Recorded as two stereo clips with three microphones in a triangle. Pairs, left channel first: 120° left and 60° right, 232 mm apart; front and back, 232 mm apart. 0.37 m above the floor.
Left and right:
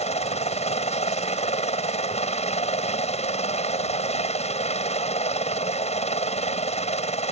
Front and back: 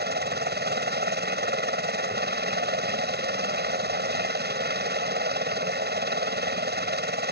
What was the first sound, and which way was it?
A helicopter, 170° left.